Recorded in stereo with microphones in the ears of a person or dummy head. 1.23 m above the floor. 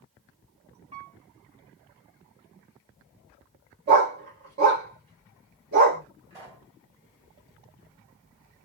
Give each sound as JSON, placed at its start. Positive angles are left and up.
{"t": 0.9, "sound": "a piano", "side_deg": -30, "distance_m": 1.1}
{"t": 3.9, "sound": "a dog barking", "side_deg": -45, "distance_m": 1.6}
{"t": 6.3, "sound": "a pop", "side_deg": -15, "distance_m": 1.7}